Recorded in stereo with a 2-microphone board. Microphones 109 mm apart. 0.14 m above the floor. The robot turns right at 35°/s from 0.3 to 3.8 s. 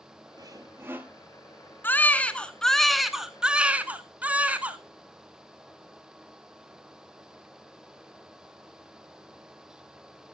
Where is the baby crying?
20° left (ahead or behind), 0.6 m; by 4.8 s 15° right (ahead or behind), 0.6 m.